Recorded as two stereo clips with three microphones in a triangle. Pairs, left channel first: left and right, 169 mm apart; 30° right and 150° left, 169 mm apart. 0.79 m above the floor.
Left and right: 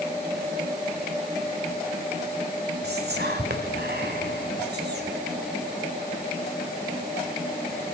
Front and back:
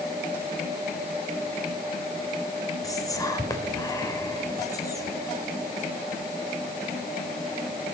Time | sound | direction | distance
2.8 | whispering | 100° right | 2.5 m